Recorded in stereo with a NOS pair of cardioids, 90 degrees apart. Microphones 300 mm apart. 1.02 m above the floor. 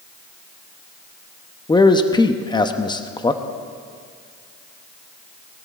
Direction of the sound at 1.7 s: 15° left.